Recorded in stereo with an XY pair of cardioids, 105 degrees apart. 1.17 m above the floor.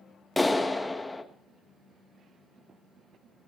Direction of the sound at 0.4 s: 10° left.